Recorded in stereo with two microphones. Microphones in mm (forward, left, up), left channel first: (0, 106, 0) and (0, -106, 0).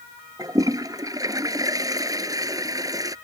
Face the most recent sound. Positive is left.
turn(degrees=-15)  # may be behind; listen again after turning